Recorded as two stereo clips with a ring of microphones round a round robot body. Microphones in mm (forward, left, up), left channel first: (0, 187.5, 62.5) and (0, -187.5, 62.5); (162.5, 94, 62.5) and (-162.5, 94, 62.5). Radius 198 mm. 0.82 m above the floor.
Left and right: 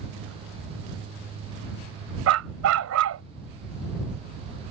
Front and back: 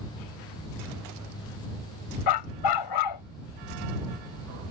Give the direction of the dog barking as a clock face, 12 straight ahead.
1 o'clock.